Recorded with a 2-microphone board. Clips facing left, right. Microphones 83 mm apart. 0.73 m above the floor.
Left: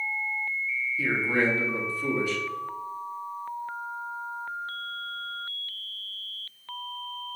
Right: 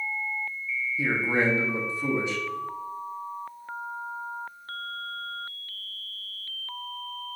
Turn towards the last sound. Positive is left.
turn(degrees=-25)  # may be behind; listen again after turning